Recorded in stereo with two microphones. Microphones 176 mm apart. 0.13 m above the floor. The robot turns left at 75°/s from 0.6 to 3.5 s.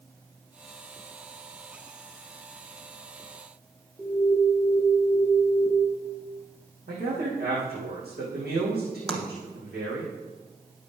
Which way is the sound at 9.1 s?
5° left (ahead or behind).